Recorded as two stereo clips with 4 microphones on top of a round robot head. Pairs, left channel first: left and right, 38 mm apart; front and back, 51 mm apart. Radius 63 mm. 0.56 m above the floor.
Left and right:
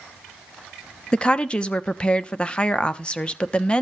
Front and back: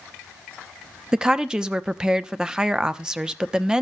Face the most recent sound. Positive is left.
turn(degrees=115)